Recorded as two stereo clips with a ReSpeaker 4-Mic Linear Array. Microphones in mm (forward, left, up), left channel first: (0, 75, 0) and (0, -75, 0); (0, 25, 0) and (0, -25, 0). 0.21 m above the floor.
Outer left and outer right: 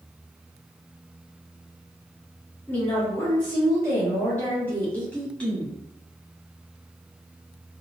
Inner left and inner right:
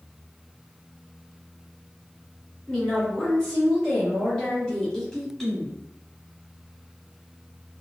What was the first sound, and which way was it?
A woman speaking, 20° left (ahead or behind).